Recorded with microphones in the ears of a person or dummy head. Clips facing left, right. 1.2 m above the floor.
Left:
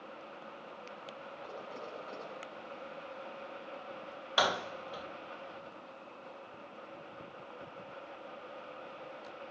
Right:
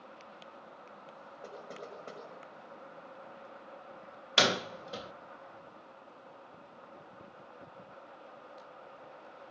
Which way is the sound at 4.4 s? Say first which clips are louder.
Right 2 dB; 35° right (ahead or behind).